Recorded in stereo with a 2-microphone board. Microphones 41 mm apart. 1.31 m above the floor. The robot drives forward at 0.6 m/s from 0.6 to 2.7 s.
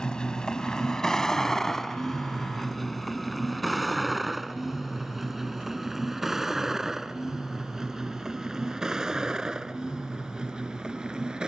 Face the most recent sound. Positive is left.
turn(degrees=-20)  # may be behind; listen again after turning